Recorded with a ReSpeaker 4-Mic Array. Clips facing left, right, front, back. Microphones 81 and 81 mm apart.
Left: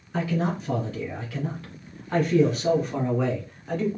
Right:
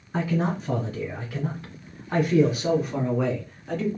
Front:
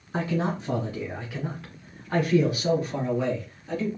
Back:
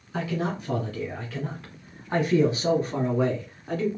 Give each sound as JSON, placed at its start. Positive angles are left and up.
{"t": 0.1, "sound": "a man speaking", "azimuth_deg": -35, "distance_m": 1.4}